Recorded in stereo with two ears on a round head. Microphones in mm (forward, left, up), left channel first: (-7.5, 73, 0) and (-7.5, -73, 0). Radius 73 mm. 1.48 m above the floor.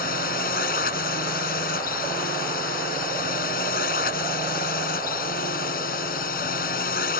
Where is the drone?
55° left (ahead or behind).